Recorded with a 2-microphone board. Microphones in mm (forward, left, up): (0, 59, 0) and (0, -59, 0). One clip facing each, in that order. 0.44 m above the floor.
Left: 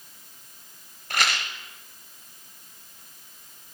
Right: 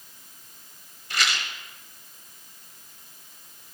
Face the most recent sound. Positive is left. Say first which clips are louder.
# left 2 dB
turn(degrees=55)  # may be behind; listen again after turning